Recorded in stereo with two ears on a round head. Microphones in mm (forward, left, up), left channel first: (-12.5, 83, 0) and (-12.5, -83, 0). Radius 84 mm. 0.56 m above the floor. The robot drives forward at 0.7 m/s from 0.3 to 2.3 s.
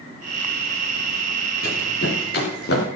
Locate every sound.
1.6 s running footsteps: 50° left (ahead or behind), 10 m; by 2.9 s 55° left (ahead or behind), 8.5 m